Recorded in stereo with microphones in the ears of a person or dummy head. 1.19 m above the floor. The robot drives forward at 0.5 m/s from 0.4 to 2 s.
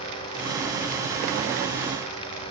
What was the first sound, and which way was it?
Only background noise.